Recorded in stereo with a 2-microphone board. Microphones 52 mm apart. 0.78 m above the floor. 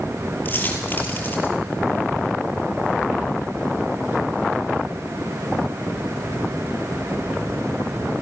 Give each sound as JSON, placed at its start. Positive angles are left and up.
{"t": 0.5, "sound": "a dropped coin", "side_deg": 35, "distance_m": 6.0}